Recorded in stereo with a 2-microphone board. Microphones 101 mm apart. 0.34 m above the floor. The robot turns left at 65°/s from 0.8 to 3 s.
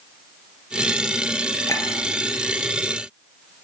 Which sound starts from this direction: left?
A clink, at 1.7 s.